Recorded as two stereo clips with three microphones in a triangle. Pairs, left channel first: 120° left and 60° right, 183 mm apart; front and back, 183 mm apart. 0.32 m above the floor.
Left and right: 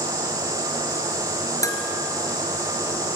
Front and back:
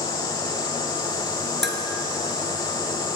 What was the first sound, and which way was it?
Dishes clattering, 170° right.